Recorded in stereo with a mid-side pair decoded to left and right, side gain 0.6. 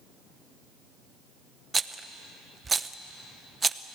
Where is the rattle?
20° right, 0.8 m.